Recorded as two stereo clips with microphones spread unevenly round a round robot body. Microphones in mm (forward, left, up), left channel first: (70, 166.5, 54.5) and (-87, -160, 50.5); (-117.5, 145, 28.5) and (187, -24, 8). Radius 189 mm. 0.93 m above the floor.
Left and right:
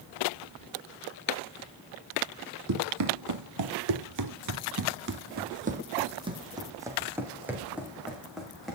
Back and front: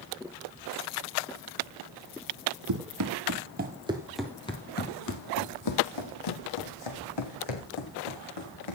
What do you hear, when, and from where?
2.7 s running footsteps: 70° right, 1.8 m; by 8.8 s 155° left, 4 m